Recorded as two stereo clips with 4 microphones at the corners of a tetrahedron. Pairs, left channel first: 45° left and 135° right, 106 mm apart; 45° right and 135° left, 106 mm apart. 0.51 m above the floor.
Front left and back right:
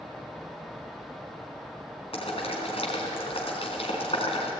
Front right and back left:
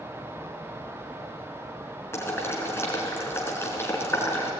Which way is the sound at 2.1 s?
20° left.